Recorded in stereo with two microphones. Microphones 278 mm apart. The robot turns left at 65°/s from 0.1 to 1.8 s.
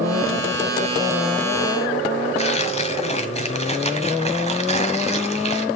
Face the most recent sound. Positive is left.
turn(degrees=25)  # may be behind; listen again after turning